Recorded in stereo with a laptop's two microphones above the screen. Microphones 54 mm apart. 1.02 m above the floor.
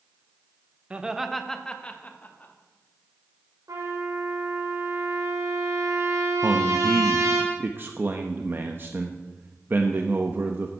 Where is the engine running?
I don't hear an engine running.